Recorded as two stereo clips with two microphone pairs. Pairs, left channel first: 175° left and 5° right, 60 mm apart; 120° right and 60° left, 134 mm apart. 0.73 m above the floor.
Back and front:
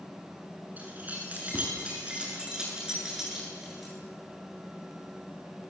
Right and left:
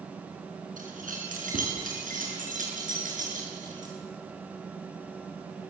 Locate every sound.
0.8 s keys jangling: 55° left, 7.5 m; by 3.9 s 80° left, 10 m